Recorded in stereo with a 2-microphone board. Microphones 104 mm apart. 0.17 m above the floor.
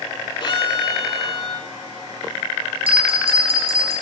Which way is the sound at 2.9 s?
70° right (ahead or behind).